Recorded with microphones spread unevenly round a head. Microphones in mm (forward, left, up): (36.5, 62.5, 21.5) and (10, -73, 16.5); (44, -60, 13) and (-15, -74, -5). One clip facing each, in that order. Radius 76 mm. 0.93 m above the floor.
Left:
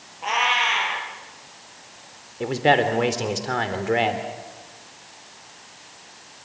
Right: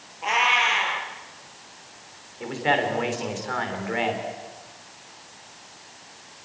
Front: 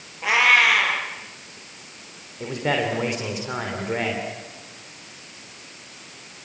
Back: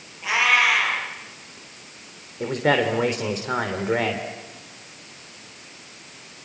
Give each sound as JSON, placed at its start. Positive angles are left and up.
{"t": 0.2, "sound": "a cat meowing", "azimuth_deg": -15, "distance_m": 6.5}
{"t": 2.4, "sound": "a man speaking", "azimuth_deg": 130, "distance_m": 3.0}